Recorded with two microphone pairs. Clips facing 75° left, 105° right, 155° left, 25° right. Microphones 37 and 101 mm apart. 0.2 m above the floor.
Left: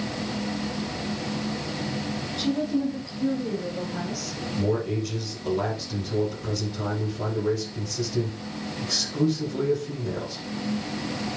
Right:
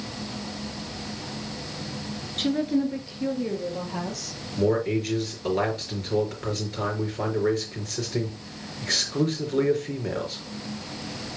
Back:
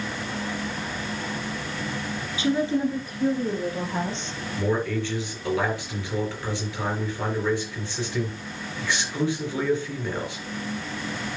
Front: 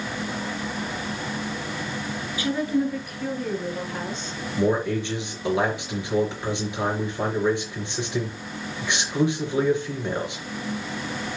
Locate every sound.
2.4 s a woman speaking: 140° right, 2.5 m
4.6 s a man speaking: 95° right, 4.5 m